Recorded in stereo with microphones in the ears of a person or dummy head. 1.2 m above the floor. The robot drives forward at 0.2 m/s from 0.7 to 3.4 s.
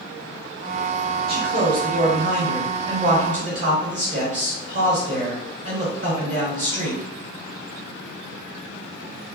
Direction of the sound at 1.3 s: 55° right (ahead or behind).